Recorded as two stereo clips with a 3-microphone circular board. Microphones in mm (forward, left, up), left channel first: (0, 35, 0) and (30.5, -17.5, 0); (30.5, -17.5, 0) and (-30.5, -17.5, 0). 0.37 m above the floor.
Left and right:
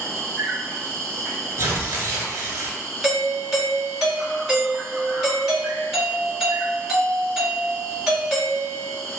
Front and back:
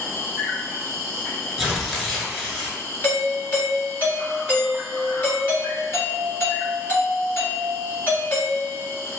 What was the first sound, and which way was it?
An insect, 105° left.